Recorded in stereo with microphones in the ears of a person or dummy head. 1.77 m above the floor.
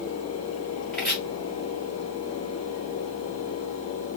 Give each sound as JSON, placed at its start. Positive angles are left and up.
{"t": 0.9, "sound": "chopping", "side_deg": 5, "distance_m": 1.6}